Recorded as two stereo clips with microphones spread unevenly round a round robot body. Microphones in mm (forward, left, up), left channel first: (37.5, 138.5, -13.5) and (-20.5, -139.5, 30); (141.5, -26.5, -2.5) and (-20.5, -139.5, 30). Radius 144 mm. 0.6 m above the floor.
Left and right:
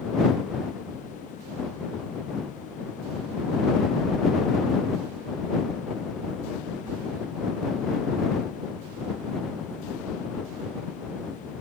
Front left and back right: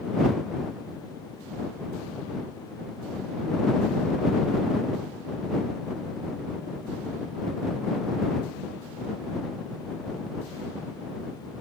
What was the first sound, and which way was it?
Only background noise.